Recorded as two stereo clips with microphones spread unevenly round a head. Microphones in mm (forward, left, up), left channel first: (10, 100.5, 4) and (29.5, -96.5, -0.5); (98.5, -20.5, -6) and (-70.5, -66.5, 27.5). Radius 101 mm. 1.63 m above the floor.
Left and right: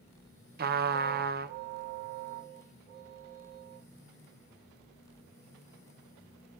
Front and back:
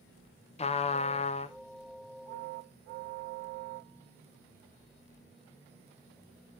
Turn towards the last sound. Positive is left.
turn(degrees=-45)